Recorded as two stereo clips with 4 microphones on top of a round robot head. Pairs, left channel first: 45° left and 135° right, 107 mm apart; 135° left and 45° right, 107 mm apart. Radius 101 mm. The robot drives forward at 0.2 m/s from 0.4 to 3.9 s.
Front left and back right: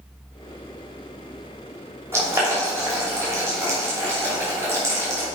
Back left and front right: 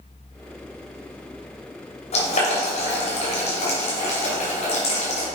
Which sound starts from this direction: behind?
Boiling, at 2.1 s.